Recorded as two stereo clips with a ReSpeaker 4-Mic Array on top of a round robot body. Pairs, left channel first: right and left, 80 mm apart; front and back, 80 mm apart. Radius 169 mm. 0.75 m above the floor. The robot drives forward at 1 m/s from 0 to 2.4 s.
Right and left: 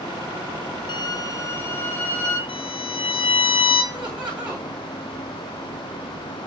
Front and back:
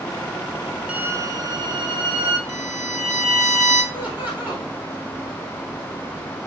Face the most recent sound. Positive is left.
turn(degrees=115)